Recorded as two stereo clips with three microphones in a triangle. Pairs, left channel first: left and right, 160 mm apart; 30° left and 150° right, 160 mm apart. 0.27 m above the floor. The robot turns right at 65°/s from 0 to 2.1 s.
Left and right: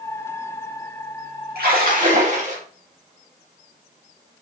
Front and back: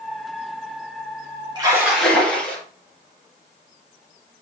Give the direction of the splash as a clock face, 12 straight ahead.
3 o'clock.